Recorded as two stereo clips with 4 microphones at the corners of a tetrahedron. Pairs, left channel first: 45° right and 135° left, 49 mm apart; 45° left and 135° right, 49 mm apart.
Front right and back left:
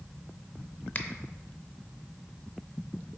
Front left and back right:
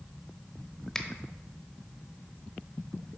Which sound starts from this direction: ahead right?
A finger snap, at 0.9 s.